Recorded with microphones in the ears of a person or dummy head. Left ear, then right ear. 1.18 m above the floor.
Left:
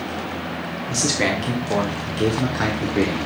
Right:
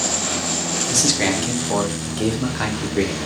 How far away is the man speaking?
About 1.0 m.